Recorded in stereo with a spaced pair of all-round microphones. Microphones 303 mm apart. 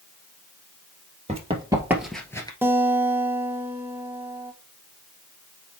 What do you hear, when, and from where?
1.3 s running footsteps: 20° right (ahead or behind), 1.9 m; by 2.5 s 15° left (ahead or behind), 1.4 m
2.6 s a guitar: 5° right (ahead or behind), 0.8 m